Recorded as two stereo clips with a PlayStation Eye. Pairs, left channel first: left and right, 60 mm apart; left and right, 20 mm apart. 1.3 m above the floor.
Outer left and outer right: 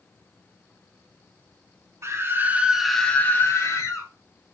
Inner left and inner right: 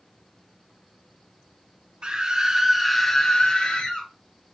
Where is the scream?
45° right (ahead or behind), 1.0 m; by 4.1 s 55° left (ahead or behind), 1.2 m.